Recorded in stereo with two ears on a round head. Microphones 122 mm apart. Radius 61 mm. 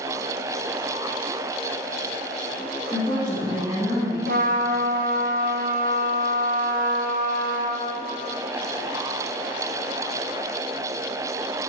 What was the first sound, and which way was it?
A woman speaking, 25° left (ahead or behind).